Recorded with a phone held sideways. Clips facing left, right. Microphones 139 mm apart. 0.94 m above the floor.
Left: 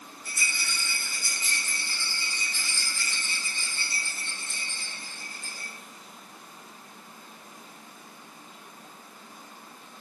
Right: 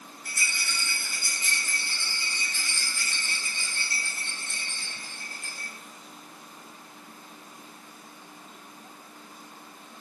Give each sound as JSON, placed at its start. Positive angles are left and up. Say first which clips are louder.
{"t": 0.2, "sound": "a rattle", "louder": "even", "side_deg": -70, "distance_m": 1.5}